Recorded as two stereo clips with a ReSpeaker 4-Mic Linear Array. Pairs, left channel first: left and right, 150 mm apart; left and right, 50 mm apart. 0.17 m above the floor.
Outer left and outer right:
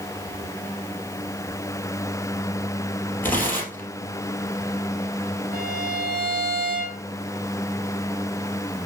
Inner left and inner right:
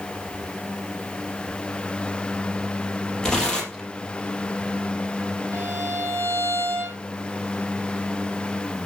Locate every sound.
3.2 s tearing paper: 15° left (ahead or behind), 3.5 m
5.5 s a violin: 85° right, 2.5 m